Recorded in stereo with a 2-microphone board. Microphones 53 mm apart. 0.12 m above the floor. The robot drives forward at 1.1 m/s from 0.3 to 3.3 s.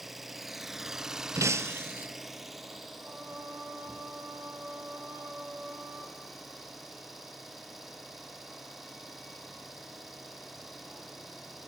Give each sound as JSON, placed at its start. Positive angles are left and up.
{"t": 0.0, "sound": "an engine running", "side_deg": -5, "distance_m": 1.1}
{"t": 1.4, "sound": "breaking glass", "side_deg": -65, "distance_m": 0.6}
{"t": 3.0, "sound": "singing", "side_deg": -35, "distance_m": 2.5}